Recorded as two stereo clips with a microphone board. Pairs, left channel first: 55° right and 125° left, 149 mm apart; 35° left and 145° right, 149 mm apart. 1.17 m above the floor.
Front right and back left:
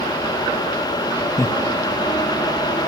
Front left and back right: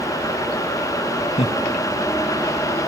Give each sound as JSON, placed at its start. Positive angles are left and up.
{"t": 1.4, "sound": "laughter", "azimuth_deg": 10, "distance_m": 0.8}